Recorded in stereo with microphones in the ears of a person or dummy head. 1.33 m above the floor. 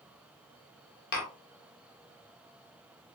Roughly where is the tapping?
Left.